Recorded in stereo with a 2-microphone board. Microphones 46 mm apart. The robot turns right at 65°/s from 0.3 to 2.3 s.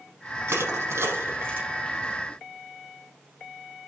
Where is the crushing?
60° right (ahead or behind), 5.5 m; by 1.7 s 45° right (ahead or behind), 5.5 m.